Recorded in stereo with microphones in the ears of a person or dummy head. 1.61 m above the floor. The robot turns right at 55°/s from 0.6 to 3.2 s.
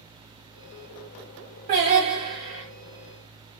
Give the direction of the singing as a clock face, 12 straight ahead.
2 o'clock.